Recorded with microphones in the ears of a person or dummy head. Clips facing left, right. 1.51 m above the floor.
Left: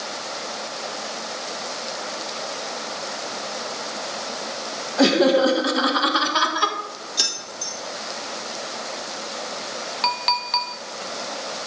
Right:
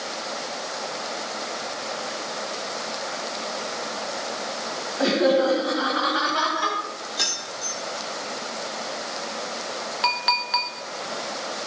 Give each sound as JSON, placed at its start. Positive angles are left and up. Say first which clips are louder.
{"t": 5.0, "sound": "laughter", "louder": "left 3 dB", "side_deg": 90, "distance_m": 2.0}
{"t": 7.2, "sound": "keys jangling", "louder": "right 1 dB", "side_deg": 40, "distance_m": 3.0}
{"t": 10.0, "sound": "a clink", "louder": "left 1 dB", "side_deg": -10, "distance_m": 1.0}